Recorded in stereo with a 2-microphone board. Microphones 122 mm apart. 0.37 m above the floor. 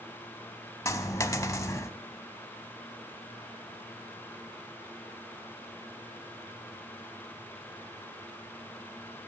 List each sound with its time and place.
0.8 s a dropped coin: 25° left (ahead or behind), 0.6 m